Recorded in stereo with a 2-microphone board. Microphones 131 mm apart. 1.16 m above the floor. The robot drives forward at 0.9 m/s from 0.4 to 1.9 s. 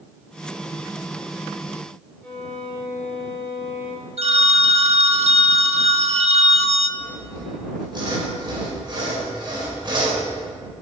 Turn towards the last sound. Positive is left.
turn(degrees=-40)  # may be behind; listen again after turning